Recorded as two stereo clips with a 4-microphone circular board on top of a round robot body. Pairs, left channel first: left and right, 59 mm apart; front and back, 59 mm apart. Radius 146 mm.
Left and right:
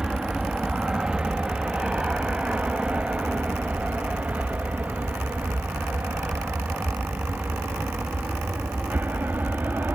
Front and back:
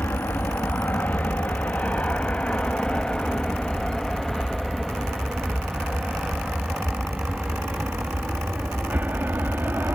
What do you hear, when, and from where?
0.0 s an aircraft: 20° right; by 10.0 s 135° right